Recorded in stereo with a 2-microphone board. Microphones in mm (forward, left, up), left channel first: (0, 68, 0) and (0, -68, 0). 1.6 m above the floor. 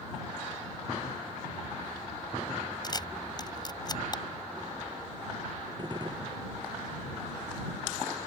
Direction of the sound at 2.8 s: 30° left (ahead or behind).